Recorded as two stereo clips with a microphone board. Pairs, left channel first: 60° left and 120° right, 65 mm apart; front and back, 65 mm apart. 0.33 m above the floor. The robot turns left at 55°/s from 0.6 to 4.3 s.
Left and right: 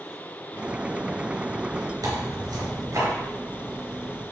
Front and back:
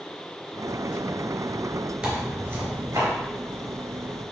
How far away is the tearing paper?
About 3.5 m.